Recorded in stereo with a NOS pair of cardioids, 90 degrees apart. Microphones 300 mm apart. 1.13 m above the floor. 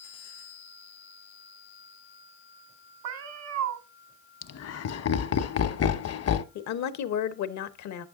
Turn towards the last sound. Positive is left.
turn(degrees=65)